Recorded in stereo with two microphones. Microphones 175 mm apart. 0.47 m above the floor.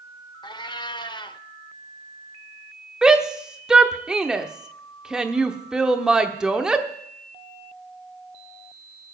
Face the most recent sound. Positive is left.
turn(degrees=-5)  # may be behind; listen again after turning